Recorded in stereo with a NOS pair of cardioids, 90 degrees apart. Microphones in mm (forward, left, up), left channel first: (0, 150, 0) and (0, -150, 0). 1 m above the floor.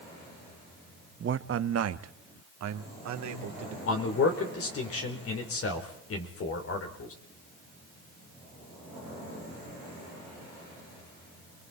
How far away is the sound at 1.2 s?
About 0.9 m.